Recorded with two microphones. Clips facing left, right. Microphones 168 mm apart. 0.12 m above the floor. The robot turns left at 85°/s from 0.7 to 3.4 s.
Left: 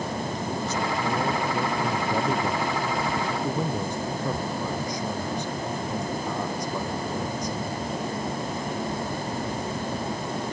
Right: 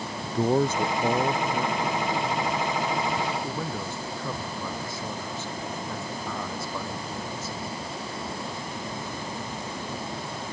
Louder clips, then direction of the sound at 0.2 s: Right 6 dB; 110° right.